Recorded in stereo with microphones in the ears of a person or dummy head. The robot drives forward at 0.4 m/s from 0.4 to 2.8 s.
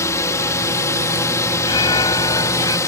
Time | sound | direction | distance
0.0 | a drone | 15° left (ahead or behind) | ?
1.6 | an alarm | 25° left (ahead or behind) | ?